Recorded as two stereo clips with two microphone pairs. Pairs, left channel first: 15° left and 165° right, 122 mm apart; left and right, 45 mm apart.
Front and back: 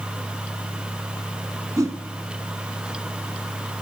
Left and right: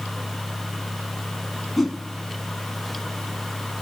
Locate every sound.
1.8 s a whoosh: 175° left, 0.7 m